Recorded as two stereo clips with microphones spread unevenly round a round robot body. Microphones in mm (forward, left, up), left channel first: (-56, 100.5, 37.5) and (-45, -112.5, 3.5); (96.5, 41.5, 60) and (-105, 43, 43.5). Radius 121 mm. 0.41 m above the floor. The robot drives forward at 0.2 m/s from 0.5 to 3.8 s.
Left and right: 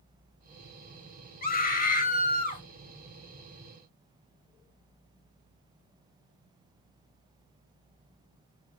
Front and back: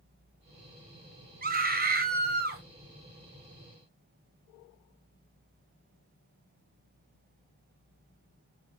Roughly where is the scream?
Behind left.